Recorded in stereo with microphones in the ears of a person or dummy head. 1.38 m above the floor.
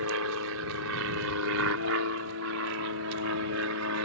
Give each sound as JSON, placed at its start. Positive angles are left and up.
{"t": 0.0, "sound": "an aircraft", "side_deg": -75}